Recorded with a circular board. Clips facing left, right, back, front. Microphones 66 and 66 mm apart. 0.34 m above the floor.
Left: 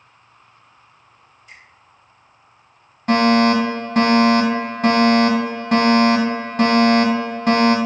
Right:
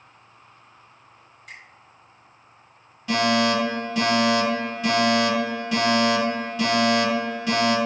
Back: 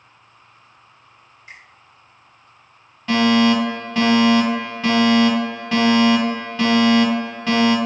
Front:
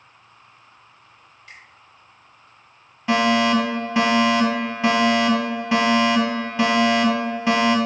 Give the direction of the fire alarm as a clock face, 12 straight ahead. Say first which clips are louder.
Left 6 dB, back 2 dB; 10 o'clock.